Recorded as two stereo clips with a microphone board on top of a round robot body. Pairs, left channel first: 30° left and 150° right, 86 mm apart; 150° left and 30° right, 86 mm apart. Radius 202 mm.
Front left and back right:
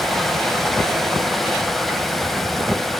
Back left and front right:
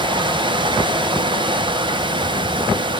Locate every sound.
0.0 s running water: 60° right, 1.1 m